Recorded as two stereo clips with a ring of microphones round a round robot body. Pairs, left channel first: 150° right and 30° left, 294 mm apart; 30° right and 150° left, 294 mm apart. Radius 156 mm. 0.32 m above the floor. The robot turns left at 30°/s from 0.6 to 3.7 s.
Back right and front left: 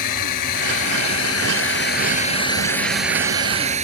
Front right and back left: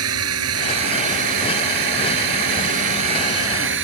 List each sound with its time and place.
0.0 s a drone: 170° right; by 3.8 s 100° left